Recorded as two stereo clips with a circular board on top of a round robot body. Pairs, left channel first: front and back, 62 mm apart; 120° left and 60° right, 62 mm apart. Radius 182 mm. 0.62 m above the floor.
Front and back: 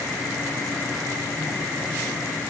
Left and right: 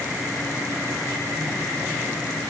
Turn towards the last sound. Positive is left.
No sound to turn to.